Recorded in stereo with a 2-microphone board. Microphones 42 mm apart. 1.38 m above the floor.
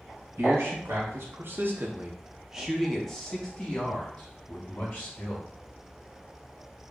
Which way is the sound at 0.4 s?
85° right.